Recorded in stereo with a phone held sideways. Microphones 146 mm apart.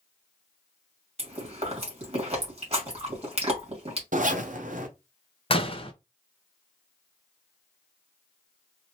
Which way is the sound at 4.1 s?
60° right (ahead or behind).